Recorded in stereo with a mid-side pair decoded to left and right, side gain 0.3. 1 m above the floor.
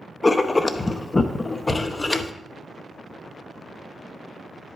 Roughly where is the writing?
Ahead left.